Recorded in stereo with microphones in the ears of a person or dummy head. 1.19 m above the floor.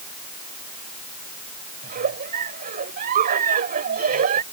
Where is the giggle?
50° right (ahead or behind).